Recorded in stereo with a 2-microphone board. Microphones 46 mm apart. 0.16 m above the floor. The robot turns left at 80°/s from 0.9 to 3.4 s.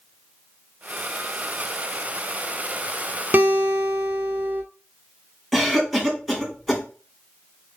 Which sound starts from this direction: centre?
A cough, at 5.5 s.